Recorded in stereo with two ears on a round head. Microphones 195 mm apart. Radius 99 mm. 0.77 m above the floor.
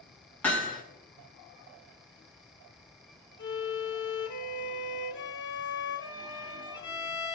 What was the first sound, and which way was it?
Hammering, 10° left (ahead or behind).